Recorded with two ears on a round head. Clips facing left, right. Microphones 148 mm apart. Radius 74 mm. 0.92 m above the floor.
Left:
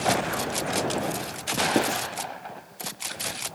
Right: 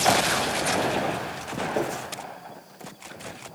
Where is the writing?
70° left (ahead or behind), 2 m.